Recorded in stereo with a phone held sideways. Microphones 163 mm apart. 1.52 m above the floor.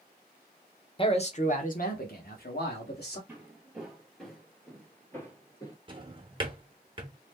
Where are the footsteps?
10° right (ahead or behind), 1.9 m; by 5.8 s 25° left (ahead or behind), 1.6 m.